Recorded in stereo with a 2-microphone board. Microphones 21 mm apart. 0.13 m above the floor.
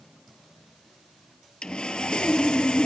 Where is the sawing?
60° left (ahead or behind), 0.5 m.